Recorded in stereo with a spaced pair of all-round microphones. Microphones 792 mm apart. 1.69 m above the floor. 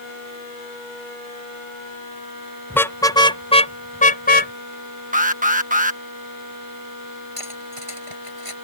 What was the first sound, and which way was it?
A car horn, centre (ahead or behind).